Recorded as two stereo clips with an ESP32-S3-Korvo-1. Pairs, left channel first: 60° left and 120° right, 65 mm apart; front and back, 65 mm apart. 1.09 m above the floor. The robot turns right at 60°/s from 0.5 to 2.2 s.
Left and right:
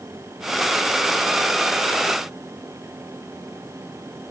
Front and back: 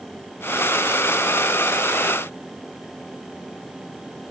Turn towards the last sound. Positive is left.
No sound to turn to.